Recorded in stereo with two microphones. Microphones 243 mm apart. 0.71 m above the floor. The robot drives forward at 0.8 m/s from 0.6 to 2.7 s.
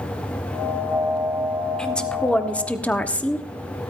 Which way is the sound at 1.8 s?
5° left (ahead or behind).